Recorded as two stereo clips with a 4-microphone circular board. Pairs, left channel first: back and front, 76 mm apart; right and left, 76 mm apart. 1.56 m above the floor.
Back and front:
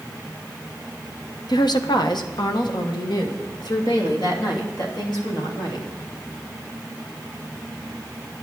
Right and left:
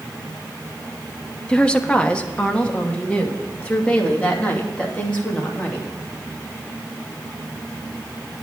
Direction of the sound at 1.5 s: 165° right.